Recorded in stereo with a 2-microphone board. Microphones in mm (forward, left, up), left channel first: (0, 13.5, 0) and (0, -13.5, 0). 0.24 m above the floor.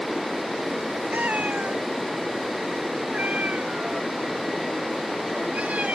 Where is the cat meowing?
80° right; by 6.0 s 60° right (ahead or behind).